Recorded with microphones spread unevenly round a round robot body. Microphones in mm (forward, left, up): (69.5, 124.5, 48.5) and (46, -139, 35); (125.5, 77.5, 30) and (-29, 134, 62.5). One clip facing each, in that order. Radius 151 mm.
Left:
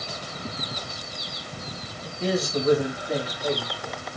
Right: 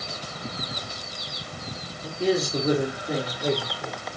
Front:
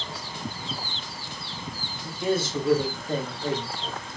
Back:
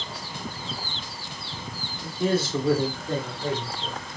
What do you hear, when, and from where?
2.0 s a man speaking: 155° right, 2 m; by 4.0 s 110° right, 2.5 m